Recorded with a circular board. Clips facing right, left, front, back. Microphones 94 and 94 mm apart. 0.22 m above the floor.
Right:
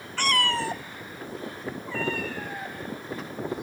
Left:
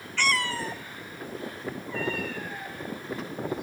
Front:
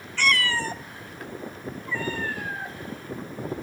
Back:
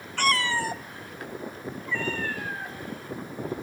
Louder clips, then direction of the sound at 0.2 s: Right 2 dB, even; 140° right.